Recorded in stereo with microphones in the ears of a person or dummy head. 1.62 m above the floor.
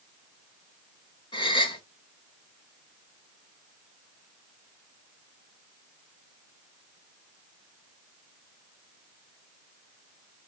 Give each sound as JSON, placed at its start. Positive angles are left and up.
{"t": 1.3, "sound": "a gasp", "side_deg": 25, "distance_m": 0.8}